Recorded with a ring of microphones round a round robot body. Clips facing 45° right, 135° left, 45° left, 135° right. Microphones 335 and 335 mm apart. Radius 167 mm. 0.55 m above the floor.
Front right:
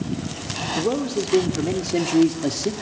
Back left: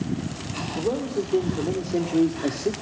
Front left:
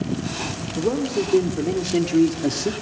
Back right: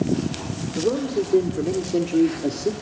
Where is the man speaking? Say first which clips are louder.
Front right 3 dB, even; 35° right, 2 m; by 2.7 s 5° left, 1.4 m.